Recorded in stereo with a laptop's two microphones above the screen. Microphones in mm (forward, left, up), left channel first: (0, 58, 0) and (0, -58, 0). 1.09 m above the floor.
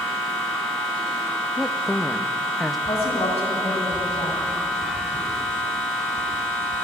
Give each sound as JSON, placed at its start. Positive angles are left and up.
{"t": 0.0, "sound": "a machine running", "side_deg": 10, "distance_m": 4.5}
{"t": 1.6, "sound": "a woman speaking", "side_deg": 0, "distance_m": 1.4}
{"t": 2.9, "sound": "a woman speaking", "side_deg": 65, "distance_m": 10.0}